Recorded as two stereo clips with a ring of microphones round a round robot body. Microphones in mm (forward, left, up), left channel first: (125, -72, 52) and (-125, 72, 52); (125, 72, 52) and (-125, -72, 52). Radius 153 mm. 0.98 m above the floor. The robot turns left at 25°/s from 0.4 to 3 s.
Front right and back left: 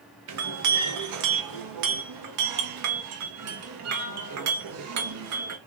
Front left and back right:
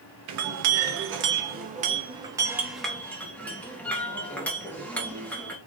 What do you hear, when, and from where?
0.3 s a clink: straight behind, 0.9 m; by 5.6 s 115° left, 0.9 m